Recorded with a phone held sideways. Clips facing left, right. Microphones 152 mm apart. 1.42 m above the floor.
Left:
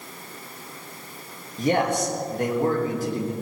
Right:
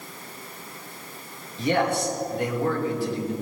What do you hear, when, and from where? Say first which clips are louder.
1.6 s a man speaking: left 1 dB; 45° left (ahead or behind), 2.5 m